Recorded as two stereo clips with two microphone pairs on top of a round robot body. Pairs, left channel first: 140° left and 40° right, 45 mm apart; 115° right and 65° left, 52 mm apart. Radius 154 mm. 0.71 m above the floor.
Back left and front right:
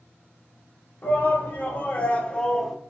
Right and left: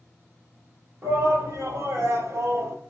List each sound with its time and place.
1.0 s a shout: 100° left, 1.9 m; by 2.8 s 60° left, 0.8 m